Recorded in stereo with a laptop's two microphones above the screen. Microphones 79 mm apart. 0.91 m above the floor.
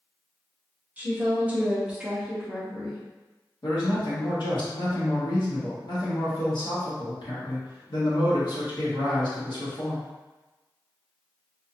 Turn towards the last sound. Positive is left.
turn(degrees=65)  # may be behind; listen again after turning